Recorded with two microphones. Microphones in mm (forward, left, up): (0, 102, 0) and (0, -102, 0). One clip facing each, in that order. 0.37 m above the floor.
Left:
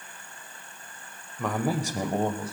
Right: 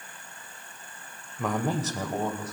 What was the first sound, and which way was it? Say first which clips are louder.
A man speaking: even; 5° right (ahead or behind).